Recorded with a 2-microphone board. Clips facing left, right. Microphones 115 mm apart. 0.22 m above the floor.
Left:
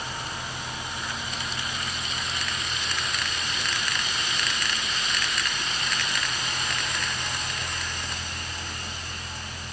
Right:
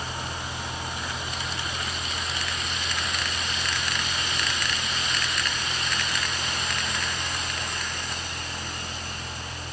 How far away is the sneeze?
I don't hear a sneeze.